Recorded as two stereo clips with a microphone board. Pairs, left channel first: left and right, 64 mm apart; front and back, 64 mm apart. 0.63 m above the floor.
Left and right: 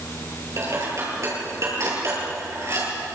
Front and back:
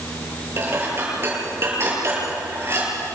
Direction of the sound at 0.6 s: 130° right.